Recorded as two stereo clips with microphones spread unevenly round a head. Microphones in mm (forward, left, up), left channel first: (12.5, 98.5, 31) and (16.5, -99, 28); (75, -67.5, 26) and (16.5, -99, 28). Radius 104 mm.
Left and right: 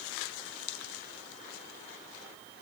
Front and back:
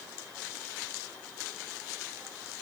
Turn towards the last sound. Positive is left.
No sound to turn to.